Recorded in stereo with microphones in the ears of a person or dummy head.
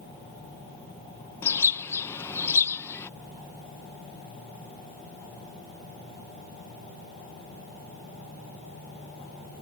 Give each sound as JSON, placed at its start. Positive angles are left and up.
{"t": 1.4, "sound": "a bird", "side_deg": 15}